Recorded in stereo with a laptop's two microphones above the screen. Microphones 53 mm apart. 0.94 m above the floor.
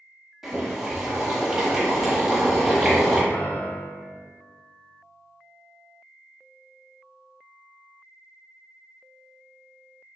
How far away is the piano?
About 1.0 m.